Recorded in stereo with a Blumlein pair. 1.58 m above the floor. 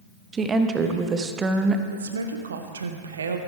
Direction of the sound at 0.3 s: 20° right.